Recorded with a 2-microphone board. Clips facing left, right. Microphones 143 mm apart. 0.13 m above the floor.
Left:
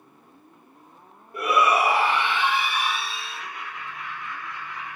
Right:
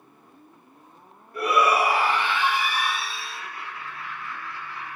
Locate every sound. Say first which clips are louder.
1.3 s a shout: even; 25° left (ahead or behind), 3.5 m
3.1 s laughter: left 1 dB; 20° left (ahead or behind), 3 m